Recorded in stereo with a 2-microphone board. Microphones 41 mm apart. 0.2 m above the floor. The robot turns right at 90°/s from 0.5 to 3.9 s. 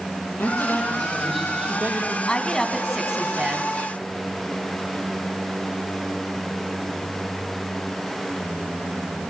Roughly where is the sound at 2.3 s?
Behind left.